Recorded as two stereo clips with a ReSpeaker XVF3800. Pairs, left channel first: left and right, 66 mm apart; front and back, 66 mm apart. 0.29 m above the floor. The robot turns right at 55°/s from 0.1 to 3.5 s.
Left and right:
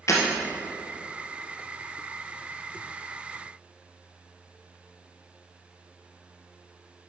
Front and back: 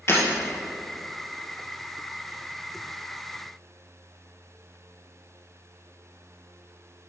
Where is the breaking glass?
50° left, 2.5 m; by 0.2 s 55° left, 2.5 m.